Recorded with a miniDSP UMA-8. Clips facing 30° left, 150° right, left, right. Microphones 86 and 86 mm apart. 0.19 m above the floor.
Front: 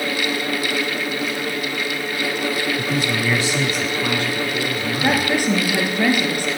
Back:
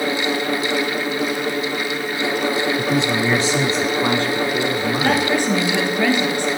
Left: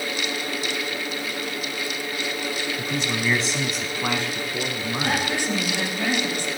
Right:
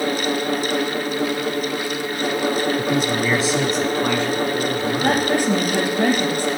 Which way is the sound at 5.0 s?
50° right.